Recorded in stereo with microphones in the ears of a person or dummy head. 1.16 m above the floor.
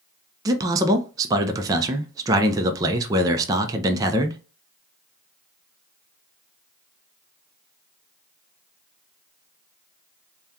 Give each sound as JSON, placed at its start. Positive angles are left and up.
{"t": 0.5, "sound": "a man speaking", "side_deg": -20, "distance_m": 0.5}